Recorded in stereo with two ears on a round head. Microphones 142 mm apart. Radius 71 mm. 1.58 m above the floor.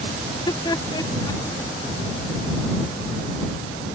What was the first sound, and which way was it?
Laughter, 25° left (ahead or behind).